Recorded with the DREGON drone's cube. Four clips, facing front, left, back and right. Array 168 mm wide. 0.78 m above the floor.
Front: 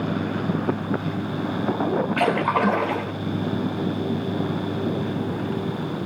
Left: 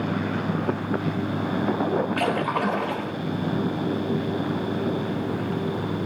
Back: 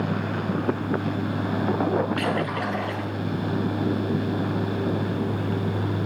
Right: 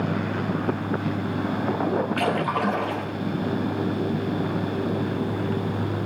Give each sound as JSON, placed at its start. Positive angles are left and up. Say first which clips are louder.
{"t": 2.2, "sound": "a splash", "louder": "even, front 5 dB", "azimuth_deg": 0, "distance_m": 2.5}